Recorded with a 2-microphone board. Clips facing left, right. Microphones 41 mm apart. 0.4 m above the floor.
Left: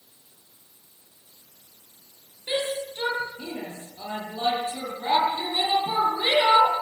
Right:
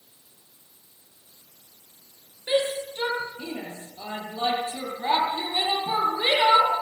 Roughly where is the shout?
Right.